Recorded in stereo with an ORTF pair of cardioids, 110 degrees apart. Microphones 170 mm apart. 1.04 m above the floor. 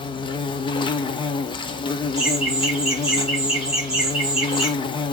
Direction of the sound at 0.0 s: 30° left.